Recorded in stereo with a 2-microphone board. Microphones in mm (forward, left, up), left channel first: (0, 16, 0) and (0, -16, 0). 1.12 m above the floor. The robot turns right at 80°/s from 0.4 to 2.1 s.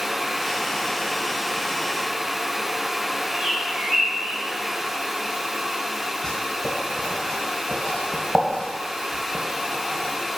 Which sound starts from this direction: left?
Writing, at 6.2 s.